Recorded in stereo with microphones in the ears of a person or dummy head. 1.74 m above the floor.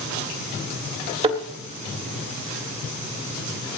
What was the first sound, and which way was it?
A thud, 30° right (ahead or behind).